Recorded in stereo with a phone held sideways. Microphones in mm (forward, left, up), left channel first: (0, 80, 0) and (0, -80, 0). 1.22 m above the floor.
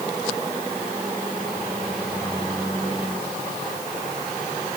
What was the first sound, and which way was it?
Only background noise.